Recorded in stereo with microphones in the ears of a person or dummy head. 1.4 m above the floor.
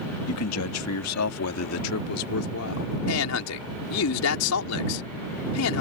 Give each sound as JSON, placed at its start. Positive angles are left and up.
{"t": 0.3, "sound": "a man speaking", "side_deg": 75}
{"t": 3.1, "sound": "a man speaking", "side_deg": 80}